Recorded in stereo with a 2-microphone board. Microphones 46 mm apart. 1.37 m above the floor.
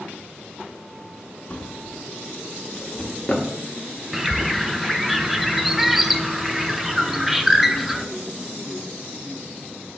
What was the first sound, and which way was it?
A drawer, 25° left (ahead or behind).